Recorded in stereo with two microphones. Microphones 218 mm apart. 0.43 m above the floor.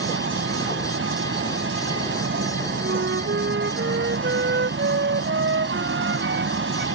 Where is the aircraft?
65° right (ahead or behind).